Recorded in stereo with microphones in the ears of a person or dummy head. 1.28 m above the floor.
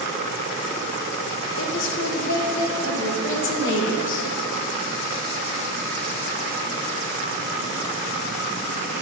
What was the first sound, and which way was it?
A woman speaking, 65° left (ahead or behind).